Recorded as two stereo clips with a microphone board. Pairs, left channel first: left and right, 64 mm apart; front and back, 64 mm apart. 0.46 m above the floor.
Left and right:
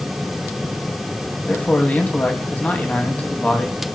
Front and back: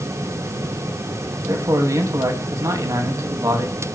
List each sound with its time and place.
1.5 s a man speaking: 155° left, 3 m